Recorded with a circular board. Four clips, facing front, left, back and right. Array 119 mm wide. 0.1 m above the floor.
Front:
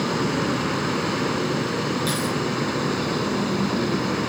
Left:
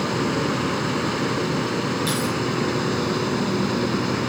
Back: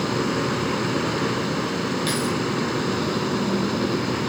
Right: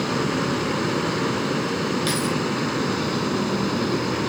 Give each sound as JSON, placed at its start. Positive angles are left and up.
{"t": 2.1, "sound": "keys jangling", "azimuth_deg": -115, "distance_m": 2.0}